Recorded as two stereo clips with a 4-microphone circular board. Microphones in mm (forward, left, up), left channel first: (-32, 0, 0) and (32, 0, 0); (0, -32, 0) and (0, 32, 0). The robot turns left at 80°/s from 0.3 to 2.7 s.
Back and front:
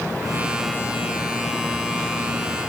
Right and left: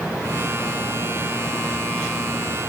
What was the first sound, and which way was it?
Only background noise.